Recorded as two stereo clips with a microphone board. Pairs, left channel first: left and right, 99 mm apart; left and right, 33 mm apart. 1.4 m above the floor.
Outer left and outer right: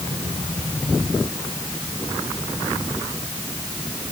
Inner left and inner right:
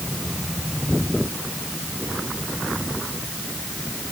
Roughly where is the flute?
No flute in this recording.